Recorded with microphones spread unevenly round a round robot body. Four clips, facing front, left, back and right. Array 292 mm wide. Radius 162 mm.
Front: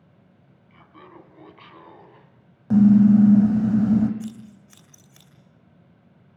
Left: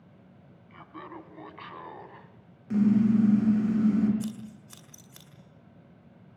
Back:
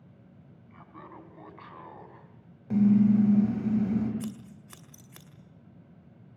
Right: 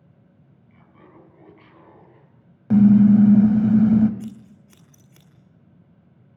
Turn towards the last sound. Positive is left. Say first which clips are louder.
# left 1 dB, front 3 dB
turn(degrees=-150)